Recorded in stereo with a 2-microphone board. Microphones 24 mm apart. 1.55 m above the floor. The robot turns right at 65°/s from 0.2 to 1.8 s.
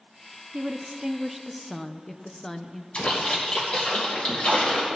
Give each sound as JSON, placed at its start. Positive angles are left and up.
{"t": 0.5, "sound": "a woman speaking", "azimuth_deg": -60, "distance_m": 0.6}
{"t": 2.9, "sound": "a splash", "side_deg": 60, "distance_m": 3.0}